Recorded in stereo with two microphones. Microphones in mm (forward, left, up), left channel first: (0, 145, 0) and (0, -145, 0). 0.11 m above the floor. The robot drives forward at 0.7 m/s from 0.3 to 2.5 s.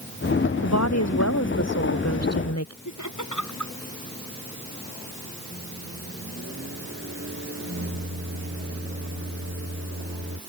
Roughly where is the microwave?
Right.